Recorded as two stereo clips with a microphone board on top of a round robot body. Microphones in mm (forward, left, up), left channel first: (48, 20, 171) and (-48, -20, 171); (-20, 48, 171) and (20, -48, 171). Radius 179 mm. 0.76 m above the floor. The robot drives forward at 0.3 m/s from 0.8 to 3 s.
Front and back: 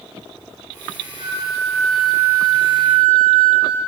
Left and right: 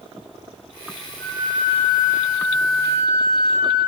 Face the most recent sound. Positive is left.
turn(degrees=-140)